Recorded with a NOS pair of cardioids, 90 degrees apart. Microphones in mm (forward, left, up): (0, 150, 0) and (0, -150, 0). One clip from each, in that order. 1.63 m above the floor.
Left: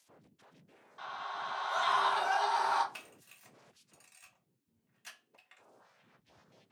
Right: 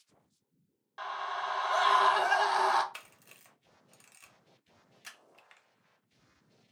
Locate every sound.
1.0 s a scream: 50° right, 0.9 m
2.9 s a camera shutter: 25° right, 0.7 m